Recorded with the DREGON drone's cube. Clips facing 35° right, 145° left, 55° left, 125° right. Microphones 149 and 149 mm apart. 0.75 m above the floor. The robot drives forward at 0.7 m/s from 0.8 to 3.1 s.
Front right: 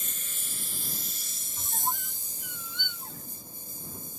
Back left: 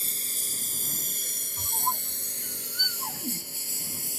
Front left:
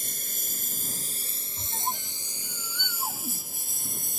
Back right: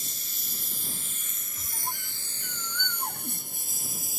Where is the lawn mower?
90° left; by 4.2 s 150° left.